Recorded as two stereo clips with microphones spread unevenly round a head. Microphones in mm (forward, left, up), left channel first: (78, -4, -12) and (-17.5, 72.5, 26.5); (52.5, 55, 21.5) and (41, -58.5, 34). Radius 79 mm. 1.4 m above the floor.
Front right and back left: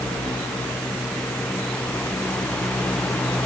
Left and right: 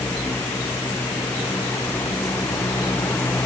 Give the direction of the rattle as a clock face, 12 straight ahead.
I don't hear a rattle.